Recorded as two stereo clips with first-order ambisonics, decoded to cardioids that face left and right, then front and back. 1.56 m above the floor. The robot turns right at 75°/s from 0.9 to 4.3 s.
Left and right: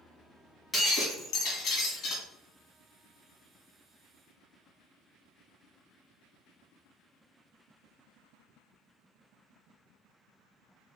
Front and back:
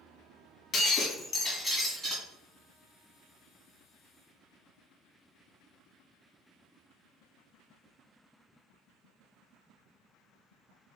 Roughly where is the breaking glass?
Ahead left.